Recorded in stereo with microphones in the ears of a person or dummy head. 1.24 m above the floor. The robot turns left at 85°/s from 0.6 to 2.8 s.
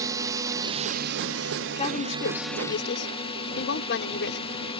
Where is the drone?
20° right; by 4.8 s 155° left.